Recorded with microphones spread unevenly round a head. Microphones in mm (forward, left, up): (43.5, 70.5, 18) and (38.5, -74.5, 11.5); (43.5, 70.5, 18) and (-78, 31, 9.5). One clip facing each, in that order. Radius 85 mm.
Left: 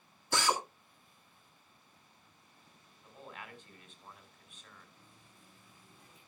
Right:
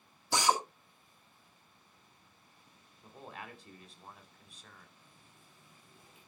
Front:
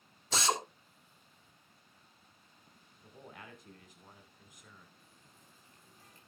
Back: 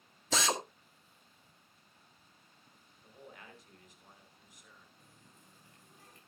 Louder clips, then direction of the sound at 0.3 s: Right 3 dB, even; 170° right.